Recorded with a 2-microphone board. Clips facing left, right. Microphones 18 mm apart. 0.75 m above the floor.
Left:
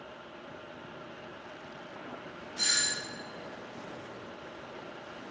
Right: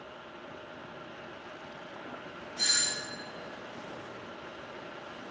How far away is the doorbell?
About 3 m.